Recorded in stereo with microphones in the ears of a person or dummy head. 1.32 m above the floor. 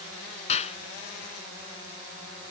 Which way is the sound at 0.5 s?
40° left (ahead or behind).